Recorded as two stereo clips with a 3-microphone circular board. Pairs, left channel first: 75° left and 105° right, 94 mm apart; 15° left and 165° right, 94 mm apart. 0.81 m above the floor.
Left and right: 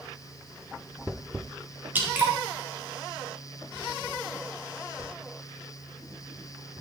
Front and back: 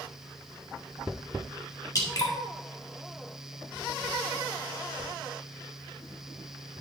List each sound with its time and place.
1.9 s dripping: 35° right, 1.8 m